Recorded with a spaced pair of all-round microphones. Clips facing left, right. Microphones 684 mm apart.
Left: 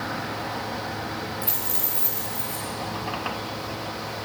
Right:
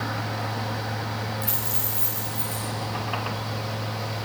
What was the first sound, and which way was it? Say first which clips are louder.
A fan: even; 30° right (ahead or behind).